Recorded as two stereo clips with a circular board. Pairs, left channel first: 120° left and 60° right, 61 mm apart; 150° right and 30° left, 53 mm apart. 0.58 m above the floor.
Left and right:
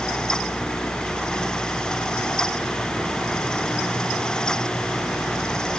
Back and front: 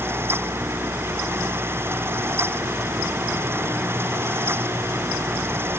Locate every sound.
Only background noise.